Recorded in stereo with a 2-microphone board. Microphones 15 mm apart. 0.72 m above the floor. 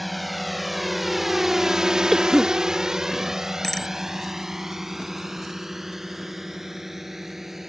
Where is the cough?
10° right (ahead or behind).